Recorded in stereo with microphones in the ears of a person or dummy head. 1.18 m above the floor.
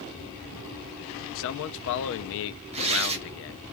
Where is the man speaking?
60° left (ahead or behind), 0.5 m.